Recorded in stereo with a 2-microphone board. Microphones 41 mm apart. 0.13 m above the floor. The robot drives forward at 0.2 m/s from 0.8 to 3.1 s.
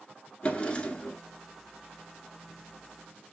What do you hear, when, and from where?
0.4 s a drawer: 30° left (ahead or behind), 0.7 m